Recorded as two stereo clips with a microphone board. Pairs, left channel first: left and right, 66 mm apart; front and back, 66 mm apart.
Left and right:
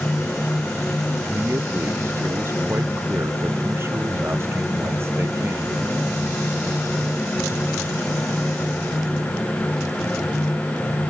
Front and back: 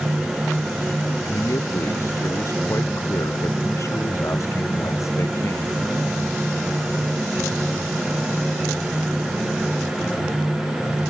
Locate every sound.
1.2 s a man speaking: 40° right